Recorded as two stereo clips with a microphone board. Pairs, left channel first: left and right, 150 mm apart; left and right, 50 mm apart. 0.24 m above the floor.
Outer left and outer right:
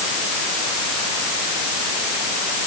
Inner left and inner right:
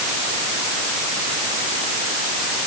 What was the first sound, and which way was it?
Only background noise.